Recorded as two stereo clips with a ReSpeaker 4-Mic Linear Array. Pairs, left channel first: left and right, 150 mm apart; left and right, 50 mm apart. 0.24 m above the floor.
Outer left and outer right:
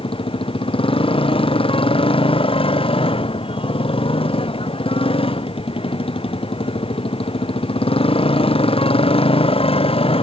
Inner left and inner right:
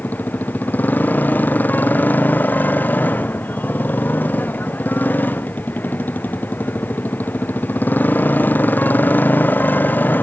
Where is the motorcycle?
35° left (ahead or behind); by 10.2 s 40° left (ahead or behind).